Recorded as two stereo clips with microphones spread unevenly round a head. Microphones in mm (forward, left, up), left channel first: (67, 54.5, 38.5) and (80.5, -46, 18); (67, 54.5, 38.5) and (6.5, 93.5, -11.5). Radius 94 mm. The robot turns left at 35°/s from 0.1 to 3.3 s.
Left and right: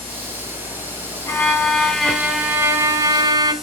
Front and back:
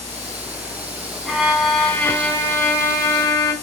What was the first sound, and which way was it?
A violin, 45° left.